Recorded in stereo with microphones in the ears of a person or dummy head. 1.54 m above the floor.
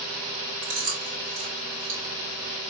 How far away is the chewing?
About 2.5 m.